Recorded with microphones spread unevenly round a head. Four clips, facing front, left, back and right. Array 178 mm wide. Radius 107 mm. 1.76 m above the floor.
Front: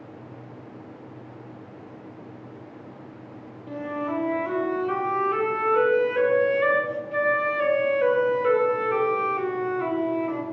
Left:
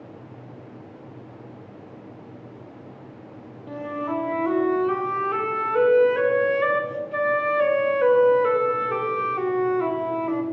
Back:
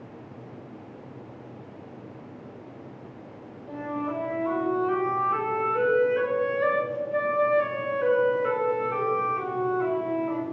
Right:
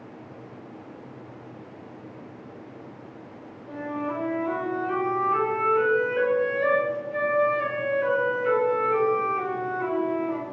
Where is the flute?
55° left, 1.0 m.